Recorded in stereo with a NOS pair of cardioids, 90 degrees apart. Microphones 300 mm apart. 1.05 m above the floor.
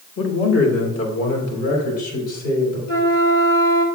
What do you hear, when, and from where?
0.2 s a man speaking: 45° left, 1.6 m; by 2.8 s 70° left, 5 m
2.9 s a flute: 65° left, 2.0 m